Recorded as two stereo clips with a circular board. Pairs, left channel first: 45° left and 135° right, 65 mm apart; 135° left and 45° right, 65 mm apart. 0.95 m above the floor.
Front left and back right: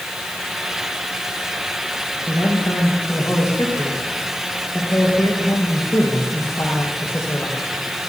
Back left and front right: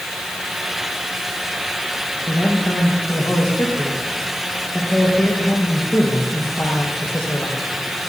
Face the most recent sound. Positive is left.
turn(degrees=90)